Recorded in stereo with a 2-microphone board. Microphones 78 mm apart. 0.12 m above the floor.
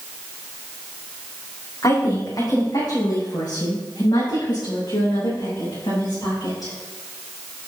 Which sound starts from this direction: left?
A woman speaking, at 1.8 s.